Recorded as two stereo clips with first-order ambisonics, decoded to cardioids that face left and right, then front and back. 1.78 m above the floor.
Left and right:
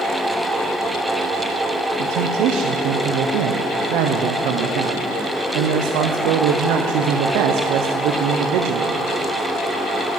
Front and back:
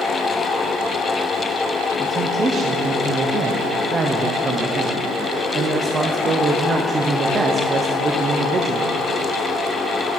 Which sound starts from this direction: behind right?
A man speaking, at 2.0 s.